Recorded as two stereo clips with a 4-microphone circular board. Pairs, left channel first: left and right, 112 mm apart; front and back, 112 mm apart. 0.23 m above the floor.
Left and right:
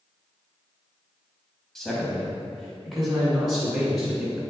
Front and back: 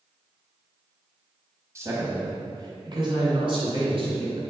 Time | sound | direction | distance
1.8 | a man speaking | 170° left | 1.1 m